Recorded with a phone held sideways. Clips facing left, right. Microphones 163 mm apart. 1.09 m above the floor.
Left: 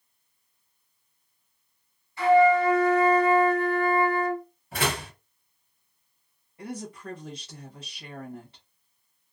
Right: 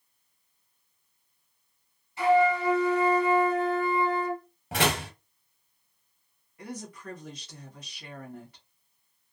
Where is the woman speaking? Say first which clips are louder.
Left 3 dB; 25° left (ahead or behind), 1.1 m.